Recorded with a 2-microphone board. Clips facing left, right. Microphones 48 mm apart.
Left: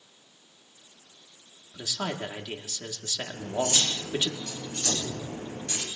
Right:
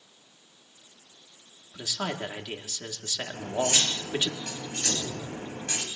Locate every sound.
1.7 s a man speaking: 20° right (ahead or behind), 1.3 m
3.3 s cutlery clinking: 60° right (ahead or behind), 3 m
4.8 s an explosion: 65° left (ahead or behind), 3 m